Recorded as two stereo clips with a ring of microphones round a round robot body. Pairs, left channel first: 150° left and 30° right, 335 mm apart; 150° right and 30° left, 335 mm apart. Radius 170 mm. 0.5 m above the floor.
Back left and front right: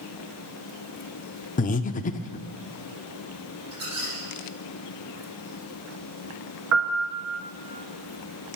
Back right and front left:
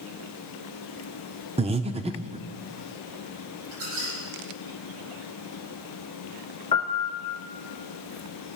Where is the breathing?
95° left, 0.5 m.